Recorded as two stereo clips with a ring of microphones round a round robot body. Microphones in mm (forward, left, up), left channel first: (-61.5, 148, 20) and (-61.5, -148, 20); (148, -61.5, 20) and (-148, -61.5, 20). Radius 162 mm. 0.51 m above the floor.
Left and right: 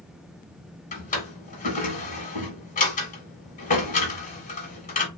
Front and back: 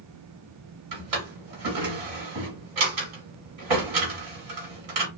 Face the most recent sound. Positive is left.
turn(degrees=155)